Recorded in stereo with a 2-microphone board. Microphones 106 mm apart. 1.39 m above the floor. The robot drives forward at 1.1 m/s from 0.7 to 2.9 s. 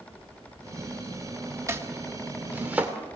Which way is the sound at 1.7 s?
25° right (ahead or behind).